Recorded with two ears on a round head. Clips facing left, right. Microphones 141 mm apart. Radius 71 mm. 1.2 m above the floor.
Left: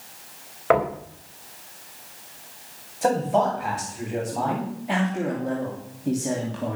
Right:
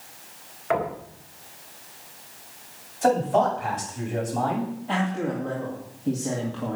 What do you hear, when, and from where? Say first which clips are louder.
0.7 s knocking: left 5 dB; 60° left (ahead or behind), 4 m
3.0 s a man speaking: right 1 dB; 5° left (ahead or behind), 8.5 m
4.9 s a man speaking: left 2 dB; 15° left (ahead or behind), 3 m